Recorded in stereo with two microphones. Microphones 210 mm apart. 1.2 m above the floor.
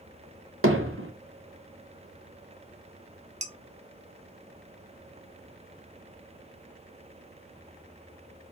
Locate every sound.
0.6 s hammering: 85° right, 0.8 m
3.4 s dishes clattering: 35° right (ahead or behind), 0.8 m